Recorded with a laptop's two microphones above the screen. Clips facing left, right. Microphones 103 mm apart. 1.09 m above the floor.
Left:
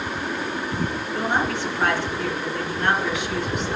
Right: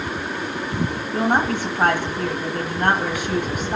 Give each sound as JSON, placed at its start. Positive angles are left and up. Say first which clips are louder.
{"t": 1.1, "sound": "a woman speaking", "louder": "right 4 dB", "side_deg": -45, "distance_m": 1.5}